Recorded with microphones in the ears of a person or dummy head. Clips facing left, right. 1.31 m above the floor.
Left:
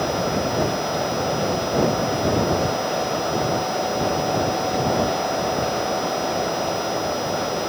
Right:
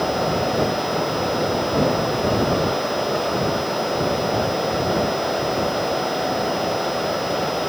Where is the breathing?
No breathing in this recording.